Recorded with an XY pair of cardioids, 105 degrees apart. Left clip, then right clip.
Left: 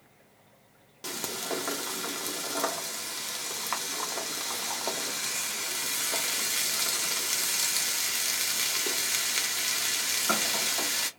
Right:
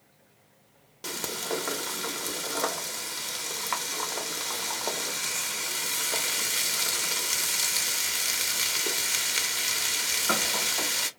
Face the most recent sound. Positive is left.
turn(degrees=-5)